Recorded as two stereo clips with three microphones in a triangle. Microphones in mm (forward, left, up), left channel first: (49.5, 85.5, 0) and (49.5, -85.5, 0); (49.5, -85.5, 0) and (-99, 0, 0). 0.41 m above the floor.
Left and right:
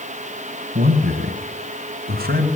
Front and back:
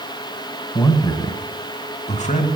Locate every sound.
0.8 s a man speaking: 100° right, 2.5 m; by 2.5 s 65° right, 2.5 m